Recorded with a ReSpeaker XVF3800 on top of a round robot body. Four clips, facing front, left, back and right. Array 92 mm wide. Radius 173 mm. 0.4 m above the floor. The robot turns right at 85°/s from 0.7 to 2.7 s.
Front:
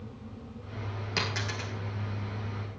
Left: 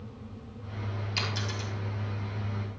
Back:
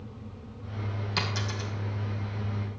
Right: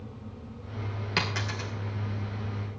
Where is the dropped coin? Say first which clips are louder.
Right 5 dB, even; 70° right, 1.8 m; by 1.7 s 25° right, 1.8 m.